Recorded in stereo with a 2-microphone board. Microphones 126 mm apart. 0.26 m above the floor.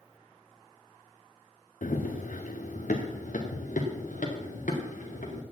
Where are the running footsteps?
80° left, 1.5 m; by 5.4 s 85° left, 4 m.